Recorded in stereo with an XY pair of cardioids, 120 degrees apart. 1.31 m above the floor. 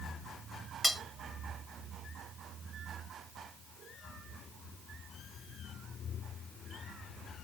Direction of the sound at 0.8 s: 5° right.